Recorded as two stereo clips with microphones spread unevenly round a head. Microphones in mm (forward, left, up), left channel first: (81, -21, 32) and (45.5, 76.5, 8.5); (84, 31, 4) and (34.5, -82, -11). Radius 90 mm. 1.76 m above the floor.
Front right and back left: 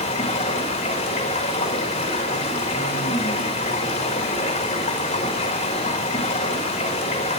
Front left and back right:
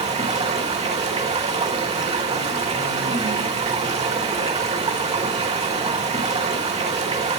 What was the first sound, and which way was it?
Running water, 80° right.